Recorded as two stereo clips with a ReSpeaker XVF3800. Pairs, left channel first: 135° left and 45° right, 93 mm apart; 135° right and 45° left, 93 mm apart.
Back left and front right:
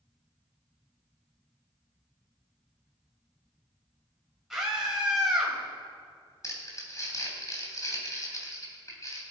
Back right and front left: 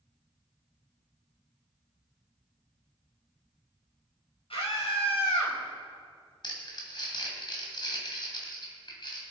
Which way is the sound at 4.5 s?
135° right.